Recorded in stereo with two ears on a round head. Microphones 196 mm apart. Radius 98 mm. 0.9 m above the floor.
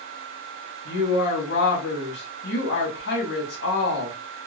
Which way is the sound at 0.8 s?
50° left (ahead or behind).